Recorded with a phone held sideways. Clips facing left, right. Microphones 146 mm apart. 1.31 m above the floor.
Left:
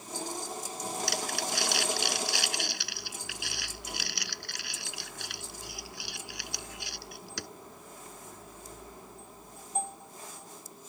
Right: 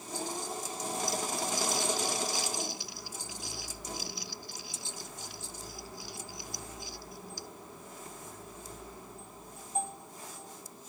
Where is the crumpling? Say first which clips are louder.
Right 1 dB; 75° left (ahead or behind).